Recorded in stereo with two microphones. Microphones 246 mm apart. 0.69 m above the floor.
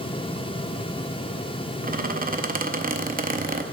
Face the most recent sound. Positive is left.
turn(degrees=-35)  # may be behind; listen again after turning